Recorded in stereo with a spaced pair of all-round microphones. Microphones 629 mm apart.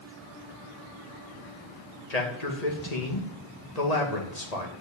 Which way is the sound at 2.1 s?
80° left.